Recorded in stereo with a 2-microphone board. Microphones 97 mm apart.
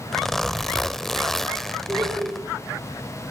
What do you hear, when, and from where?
0.1 s a zipper: 5° left (ahead or behind), 0.6 m
1.9 s laughter: 25° right (ahead or behind), 9 m